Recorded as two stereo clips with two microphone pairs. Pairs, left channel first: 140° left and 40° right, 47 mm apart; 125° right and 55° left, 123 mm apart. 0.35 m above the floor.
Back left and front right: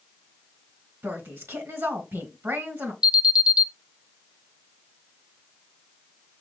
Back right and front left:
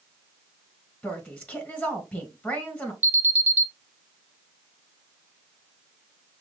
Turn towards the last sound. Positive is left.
turn(degrees=5)